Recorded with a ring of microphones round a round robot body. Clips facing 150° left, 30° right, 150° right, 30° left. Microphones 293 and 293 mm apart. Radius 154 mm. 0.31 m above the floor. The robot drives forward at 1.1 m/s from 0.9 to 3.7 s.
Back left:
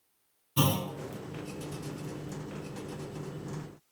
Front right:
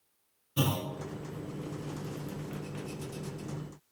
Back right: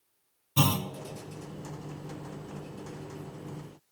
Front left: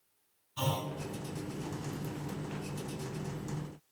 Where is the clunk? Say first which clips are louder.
Back left 2 dB, back right 7 dB; 130° right, 1.2 m.